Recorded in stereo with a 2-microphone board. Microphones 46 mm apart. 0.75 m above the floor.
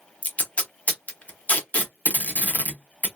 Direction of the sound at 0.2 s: 35° left (ahead or behind).